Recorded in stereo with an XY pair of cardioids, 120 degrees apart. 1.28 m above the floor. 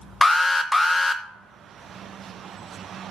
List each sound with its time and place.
0.2 s an alarm: 15° left, 0.7 m